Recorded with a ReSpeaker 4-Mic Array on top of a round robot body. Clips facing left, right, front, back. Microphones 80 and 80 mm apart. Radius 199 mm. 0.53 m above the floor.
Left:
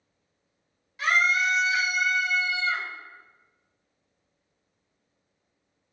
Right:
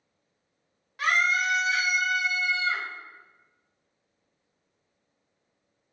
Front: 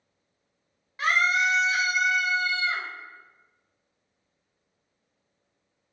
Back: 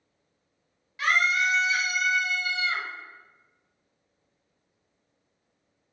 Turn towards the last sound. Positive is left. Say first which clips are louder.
# left 1 dB, front 1 dB
turn(degrees=-60)